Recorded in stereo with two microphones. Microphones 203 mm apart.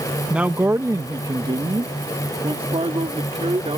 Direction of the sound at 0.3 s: 5° right (ahead or behind).